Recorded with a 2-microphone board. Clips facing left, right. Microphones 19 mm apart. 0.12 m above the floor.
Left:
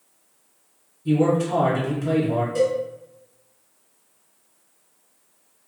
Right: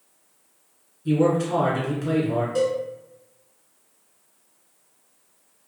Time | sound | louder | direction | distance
1.1 | a man speaking | left 1 dB | 15° right (ahead or behind) | 1.3 m
2.5 | a cowbell | left 2 dB | 20° right (ahead or behind) | 1.6 m